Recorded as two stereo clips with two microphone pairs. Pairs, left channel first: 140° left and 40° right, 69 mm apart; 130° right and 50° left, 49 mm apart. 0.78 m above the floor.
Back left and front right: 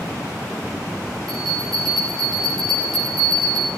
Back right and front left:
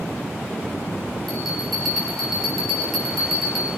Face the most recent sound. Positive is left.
turn(degrees=-40)